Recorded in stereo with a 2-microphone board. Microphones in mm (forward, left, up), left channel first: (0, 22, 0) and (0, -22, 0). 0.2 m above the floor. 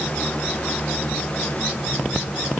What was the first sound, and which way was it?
Only background noise.